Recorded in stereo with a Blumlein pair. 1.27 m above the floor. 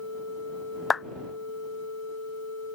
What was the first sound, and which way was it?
A clap, 15° left.